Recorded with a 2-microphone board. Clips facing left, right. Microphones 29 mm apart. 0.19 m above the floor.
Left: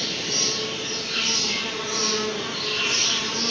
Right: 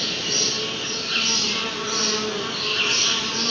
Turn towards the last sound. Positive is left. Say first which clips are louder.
# right 2 dB
turn(degrees=-40)  # may be behind; listen again after turning